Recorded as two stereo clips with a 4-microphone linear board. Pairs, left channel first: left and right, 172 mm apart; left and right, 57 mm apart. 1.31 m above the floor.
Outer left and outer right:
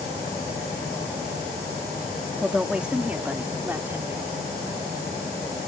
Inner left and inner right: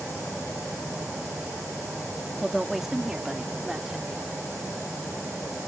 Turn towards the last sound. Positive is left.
turn(degrees=-15)  # may be behind; listen again after turning